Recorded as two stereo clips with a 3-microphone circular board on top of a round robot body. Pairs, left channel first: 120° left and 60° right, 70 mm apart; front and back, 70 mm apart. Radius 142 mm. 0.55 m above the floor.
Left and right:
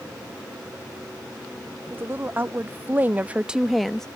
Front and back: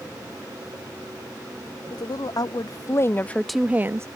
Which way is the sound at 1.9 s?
Straight ahead.